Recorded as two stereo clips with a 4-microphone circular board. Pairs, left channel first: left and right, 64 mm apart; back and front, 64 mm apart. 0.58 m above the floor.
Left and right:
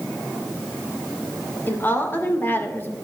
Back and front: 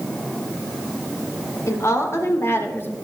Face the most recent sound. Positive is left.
turn(degrees=135)